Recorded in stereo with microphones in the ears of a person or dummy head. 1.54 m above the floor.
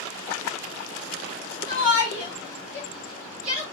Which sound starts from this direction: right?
A shout, at 1.7 s.